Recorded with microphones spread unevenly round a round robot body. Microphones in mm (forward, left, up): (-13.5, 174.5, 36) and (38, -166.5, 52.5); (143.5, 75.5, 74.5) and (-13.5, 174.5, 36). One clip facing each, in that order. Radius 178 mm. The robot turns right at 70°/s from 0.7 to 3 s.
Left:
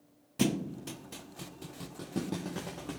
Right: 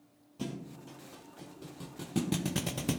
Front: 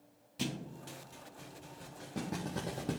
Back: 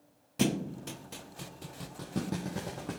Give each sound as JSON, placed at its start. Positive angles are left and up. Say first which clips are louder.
{"t": 0.4, "sound": "a thud", "louder": "left 10 dB, back 10 dB", "azimuth_deg": 110, "distance_m": 0.5}